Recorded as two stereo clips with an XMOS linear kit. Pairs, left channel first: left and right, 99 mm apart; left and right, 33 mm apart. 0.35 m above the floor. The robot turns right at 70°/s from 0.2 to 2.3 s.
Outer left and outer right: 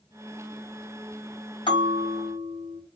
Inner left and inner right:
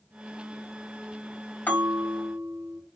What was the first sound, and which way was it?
A bell, 100° left.